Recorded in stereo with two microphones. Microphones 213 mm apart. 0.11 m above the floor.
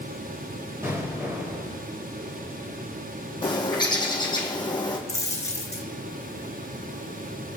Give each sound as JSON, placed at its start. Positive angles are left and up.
{"t": 0.8, "sound": "an explosion", "side_deg": -15, "distance_m": 5.0}
{"t": 3.4, "sound": "a bird", "side_deg": 20, "distance_m": 2.0}
{"t": 5.1, "sound": "a dropped coin", "side_deg": 15, "distance_m": 2.0}